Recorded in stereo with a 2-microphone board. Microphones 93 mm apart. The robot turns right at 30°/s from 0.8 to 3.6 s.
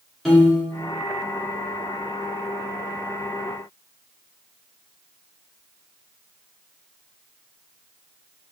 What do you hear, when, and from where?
0.2 s a piano: centre (ahead or behind), 1.8 m